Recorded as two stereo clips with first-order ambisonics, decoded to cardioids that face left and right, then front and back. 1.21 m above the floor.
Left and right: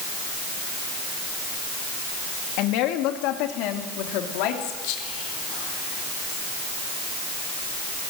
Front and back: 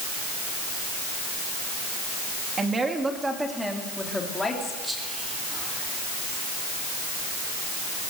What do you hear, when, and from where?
2.6 s a woman speaking: 110° left, 2.5 m; by 4.7 s 80° left, 3.5 m
4.8 s whispering: 90° left, 4 m